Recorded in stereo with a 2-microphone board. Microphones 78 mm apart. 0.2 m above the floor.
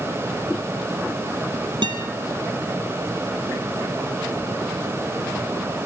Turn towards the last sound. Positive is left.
turn(degrees=-80)